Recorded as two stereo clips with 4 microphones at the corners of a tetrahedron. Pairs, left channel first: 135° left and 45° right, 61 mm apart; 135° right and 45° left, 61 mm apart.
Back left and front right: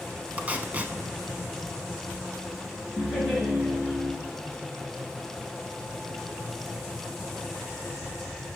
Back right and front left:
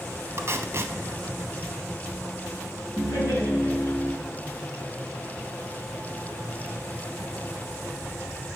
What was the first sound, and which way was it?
Tape being pulled, 15° left.